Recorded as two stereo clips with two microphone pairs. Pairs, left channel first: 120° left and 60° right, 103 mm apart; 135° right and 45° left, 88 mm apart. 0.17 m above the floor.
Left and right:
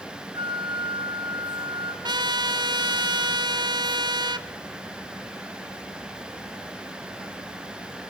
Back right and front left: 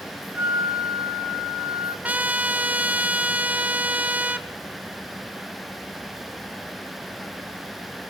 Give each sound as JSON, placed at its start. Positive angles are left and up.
{"t": 0.3, "sound": "a flute", "azimuth_deg": -30, "distance_m": 1.3}
{"t": 2.0, "sound": "a trumpet", "azimuth_deg": -30, "distance_m": 0.5}